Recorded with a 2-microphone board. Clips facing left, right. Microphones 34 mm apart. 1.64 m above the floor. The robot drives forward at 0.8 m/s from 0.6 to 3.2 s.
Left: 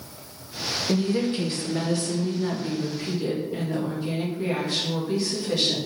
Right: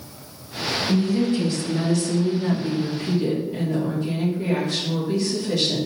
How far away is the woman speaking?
About 1.0 m.